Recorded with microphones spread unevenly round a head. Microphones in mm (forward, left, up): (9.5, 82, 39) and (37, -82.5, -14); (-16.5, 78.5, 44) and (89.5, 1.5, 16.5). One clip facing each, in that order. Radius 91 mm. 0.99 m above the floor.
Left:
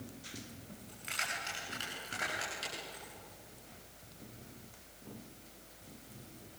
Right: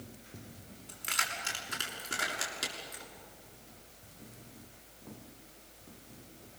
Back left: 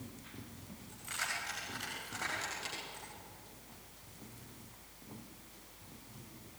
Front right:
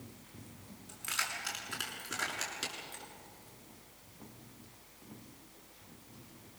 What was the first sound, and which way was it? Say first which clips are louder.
Keys jangling: right 4 dB, front right 2 dB; 60° right.